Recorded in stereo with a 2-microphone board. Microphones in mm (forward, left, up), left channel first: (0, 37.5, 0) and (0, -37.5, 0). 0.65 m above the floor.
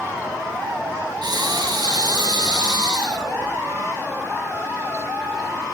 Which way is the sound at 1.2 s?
65° right (ahead or behind).